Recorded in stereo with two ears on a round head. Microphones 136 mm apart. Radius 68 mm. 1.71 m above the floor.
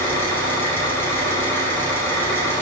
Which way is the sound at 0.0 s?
15° left (ahead or behind).